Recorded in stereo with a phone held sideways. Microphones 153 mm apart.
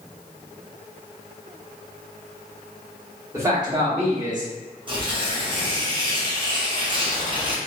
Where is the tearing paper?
35° right (ahead or behind), 0.7 m.